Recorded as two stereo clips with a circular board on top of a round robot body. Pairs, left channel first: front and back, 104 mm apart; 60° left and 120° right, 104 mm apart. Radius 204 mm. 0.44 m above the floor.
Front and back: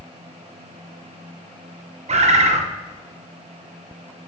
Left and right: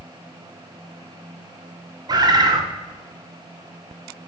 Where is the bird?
170° right, 0.5 m.